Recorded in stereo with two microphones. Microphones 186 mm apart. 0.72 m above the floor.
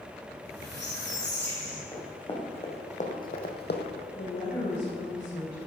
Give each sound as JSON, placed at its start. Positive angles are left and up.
{"t": 0.3, "sound": "a squeak", "side_deg": 70, "distance_m": 3.5}
{"t": 1.9, "sound": "running footsteps", "side_deg": 20, "distance_m": 3.5}
{"t": 4.2, "sound": "a woman speaking", "side_deg": 65, "distance_m": 3.5}